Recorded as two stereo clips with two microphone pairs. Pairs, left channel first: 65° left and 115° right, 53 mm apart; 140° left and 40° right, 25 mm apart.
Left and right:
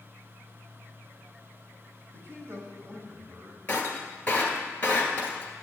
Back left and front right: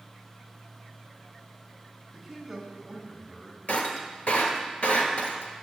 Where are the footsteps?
No footsteps in this recording.